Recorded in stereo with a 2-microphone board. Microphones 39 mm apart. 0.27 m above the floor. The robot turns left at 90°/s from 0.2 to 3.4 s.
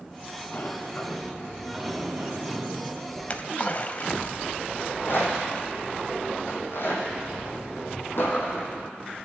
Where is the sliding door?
90° left, 1.7 m; by 3.1 s 140° right, 1.7 m.